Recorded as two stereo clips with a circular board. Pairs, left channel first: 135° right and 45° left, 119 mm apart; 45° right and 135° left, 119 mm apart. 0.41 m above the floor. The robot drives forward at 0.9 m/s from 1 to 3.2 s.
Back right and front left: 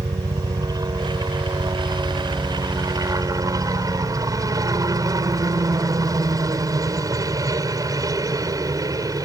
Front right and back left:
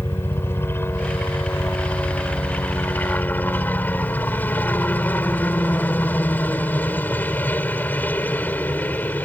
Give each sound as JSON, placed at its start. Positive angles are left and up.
{"t": 0.0, "sound": "a helicopter", "azimuth_deg": 15}